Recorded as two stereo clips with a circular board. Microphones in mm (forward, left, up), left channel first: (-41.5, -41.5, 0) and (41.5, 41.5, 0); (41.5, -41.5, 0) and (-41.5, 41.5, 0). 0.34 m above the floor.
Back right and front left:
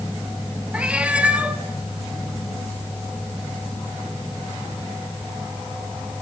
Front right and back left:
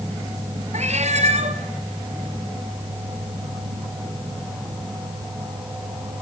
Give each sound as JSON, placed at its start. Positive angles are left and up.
{"t": 0.7, "sound": "a cat meowing", "azimuth_deg": 125, "distance_m": 1.8}